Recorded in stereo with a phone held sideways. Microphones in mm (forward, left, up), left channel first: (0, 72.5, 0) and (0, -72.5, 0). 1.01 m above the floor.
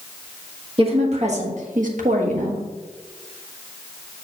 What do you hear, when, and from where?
0.8 s a woman speaking: 45° right (ahead or behind), 1.7 m; by 2.6 s 60° right (ahead or behind), 1.4 m